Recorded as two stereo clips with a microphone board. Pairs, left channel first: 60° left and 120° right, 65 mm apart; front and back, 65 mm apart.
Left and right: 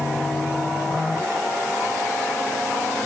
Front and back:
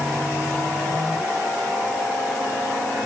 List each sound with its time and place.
Only background noise.